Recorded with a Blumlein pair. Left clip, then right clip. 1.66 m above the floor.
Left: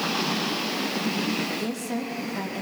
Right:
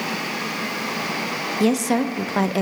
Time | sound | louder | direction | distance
1.6 | a woman speaking | right 10 dB | 60° right | 0.6 m